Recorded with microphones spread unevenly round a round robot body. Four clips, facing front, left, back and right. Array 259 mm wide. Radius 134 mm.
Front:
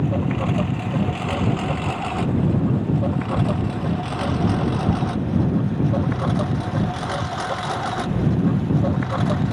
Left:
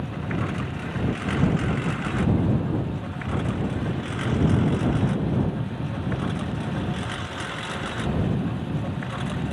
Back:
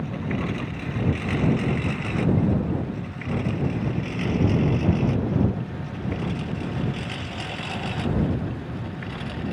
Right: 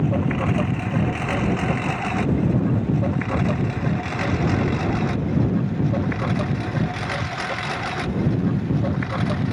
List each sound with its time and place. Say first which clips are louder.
0.0 s a lawn mower: right 7 dB, front 6 dB; 50° right; by 9.5 s 30° right